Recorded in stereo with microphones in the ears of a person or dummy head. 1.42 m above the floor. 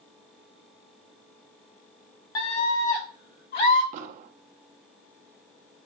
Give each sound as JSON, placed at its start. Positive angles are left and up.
{"t": 2.4, "sound": "a scream", "side_deg": 25, "distance_m": 1.0}
{"t": 3.9, "sound": "an explosion", "side_deg": -50, "distance_m": 0.6}